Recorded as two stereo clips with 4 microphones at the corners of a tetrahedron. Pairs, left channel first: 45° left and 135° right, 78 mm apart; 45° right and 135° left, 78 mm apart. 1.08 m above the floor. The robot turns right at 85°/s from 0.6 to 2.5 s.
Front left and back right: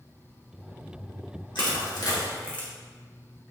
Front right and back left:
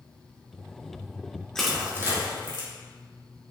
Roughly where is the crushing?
Ahead left.